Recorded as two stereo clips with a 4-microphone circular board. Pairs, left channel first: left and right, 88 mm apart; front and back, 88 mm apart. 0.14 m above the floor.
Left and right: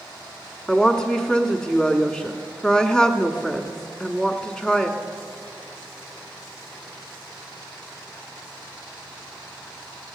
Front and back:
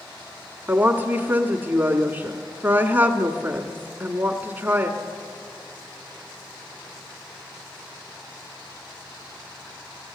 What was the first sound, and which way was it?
A woman speaking, 155° left.